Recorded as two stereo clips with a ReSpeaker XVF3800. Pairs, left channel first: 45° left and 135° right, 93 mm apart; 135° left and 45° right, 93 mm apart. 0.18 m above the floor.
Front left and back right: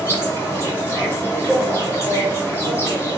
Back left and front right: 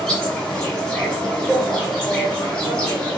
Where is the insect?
65° left, 1.8 m.